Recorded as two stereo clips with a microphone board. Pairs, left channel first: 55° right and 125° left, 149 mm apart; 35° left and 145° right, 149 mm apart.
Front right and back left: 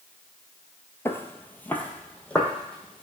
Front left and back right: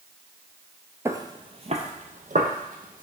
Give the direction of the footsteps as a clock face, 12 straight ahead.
3 o'clock.